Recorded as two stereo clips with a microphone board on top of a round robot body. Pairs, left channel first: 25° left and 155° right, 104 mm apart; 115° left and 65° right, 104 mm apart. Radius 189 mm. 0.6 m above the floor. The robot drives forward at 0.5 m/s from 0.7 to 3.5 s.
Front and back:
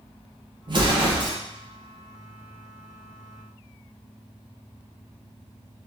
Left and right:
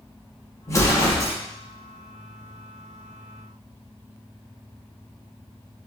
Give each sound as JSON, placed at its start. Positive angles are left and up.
{"t": 0.7, "sound": "an explosion", "azimuth_deg": 170, "distance_m": 1.4}